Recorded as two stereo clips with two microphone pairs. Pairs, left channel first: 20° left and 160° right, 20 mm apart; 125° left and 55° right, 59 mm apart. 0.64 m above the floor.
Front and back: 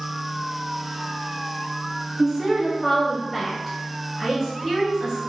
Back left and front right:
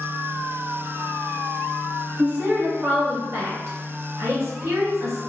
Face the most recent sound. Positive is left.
turn(degrees=-75)